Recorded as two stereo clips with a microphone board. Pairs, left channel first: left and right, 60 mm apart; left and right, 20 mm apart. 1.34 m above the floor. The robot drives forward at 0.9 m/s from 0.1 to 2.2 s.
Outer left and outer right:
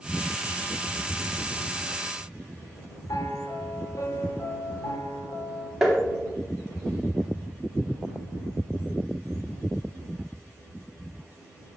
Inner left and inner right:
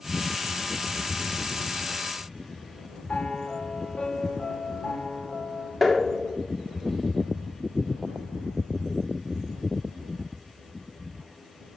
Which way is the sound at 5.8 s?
5° right (ahead or behind).